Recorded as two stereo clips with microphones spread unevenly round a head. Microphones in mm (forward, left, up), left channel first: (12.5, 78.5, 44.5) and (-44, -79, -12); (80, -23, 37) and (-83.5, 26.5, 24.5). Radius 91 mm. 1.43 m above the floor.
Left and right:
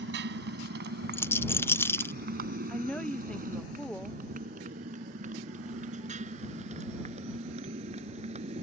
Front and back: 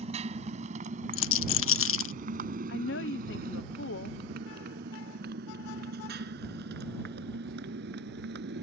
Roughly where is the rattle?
Ahead.